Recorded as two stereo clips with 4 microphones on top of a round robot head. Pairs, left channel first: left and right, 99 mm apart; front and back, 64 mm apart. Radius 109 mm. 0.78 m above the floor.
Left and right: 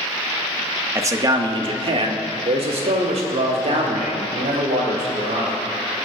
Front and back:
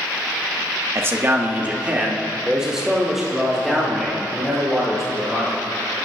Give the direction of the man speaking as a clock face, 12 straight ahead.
5 o'clock.